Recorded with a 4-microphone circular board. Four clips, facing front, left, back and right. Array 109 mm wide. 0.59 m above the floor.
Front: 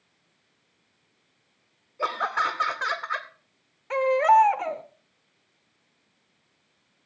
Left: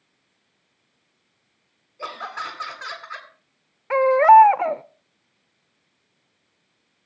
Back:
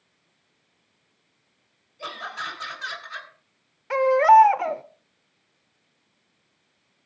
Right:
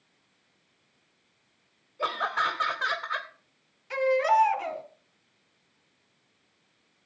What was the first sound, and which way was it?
Laughter, 10° right.